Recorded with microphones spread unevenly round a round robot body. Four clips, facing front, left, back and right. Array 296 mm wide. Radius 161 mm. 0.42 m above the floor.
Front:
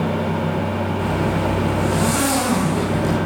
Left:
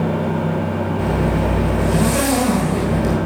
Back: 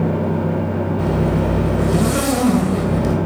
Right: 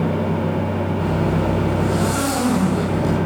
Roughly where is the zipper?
Behind left.